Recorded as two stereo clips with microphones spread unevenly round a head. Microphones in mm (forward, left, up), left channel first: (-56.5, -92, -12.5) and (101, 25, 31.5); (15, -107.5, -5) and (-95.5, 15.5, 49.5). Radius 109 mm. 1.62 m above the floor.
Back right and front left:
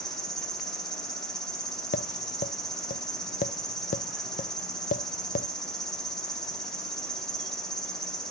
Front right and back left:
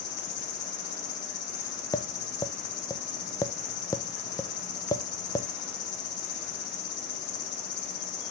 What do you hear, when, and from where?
0.0 s an insect: 40° right, 1.3 m
1.9 s tapping: 135° right, 0.6 m